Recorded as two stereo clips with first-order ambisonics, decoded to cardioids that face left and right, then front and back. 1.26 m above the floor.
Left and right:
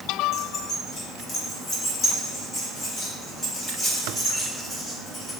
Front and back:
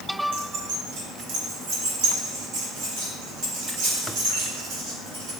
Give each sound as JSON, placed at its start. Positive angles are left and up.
{"t": 0.3, "sound": "keys jangling", "azimuth_deg": 150, "distance_m": 2.5}